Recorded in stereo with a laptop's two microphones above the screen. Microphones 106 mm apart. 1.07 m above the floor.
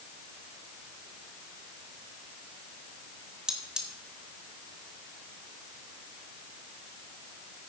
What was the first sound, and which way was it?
Cutlery clinking, 5° right (ahead or behind).